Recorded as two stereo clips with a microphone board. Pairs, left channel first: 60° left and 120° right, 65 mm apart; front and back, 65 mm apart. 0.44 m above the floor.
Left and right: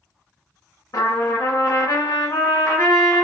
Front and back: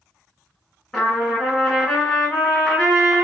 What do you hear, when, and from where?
0.9 s a trumpet: 90° left, 2.5 m